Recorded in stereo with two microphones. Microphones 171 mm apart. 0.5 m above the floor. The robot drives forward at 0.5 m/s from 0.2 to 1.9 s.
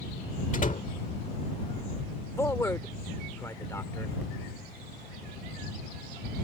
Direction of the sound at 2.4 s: 15° left (ahead or behind).